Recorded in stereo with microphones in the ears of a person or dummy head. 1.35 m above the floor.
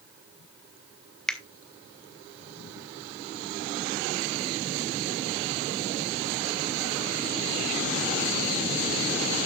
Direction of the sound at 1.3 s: 5° left (ahead or behind).